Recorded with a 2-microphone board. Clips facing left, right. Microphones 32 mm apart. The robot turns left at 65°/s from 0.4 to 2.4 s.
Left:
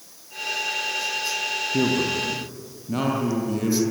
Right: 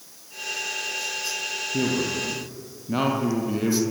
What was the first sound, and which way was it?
A man speaking, 25° left.